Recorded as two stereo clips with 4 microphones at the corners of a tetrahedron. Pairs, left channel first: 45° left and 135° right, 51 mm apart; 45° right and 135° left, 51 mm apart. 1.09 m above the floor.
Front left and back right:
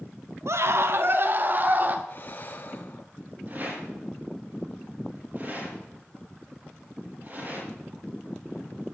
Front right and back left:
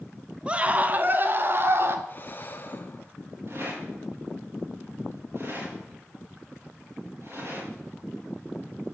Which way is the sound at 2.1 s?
5° left.